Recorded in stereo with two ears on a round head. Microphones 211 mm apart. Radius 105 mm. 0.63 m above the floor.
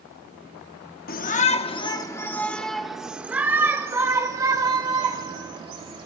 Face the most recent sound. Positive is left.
turn(degrees=-25)  # may be behind; listen again after turning